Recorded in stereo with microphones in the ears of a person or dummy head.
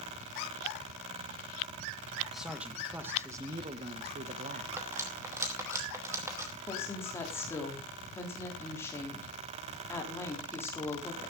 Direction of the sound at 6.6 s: 10° left (ahead or behind).